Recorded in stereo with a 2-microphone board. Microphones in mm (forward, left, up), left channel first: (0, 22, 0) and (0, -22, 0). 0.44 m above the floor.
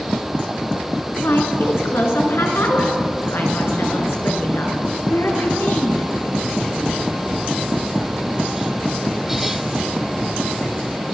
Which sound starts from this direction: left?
A woman speaking, at 1.2 s.